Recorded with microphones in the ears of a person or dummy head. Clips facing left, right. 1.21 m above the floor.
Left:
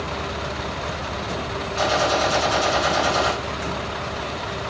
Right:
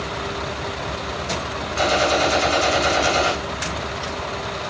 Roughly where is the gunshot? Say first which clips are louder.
Right 2 dB; right.